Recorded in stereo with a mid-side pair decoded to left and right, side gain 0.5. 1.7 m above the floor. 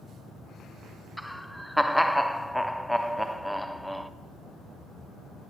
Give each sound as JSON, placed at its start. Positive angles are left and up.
{"t": 1.2, "sound": "laughter", "azimuth_deg": 0, "distance_m": 0.7}